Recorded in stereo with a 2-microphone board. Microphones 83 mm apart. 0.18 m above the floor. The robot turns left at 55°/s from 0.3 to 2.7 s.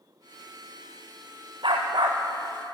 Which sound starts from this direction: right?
A dog barking, at 1.6 s.